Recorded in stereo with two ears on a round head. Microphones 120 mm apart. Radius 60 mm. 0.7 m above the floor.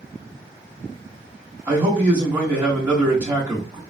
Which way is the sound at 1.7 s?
15° right (ahead or behind).